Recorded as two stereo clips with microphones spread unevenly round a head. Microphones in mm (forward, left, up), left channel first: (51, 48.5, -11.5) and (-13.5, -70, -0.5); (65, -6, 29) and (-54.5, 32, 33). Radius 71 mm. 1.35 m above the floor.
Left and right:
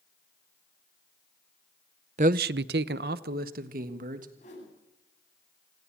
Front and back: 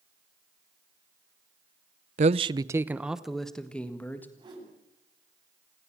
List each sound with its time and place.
2.2 s a man speaking: 165° right, 0.6 m; by 4.3 s 95° right, 2.0 m
4.4 s a whoosh: 105° left, 9.5 m